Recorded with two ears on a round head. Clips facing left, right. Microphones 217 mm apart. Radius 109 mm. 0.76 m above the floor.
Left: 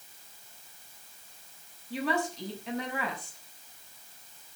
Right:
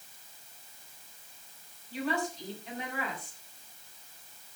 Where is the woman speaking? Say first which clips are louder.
Left 2 dB; 55° left (ahead or behind), 6.5 m.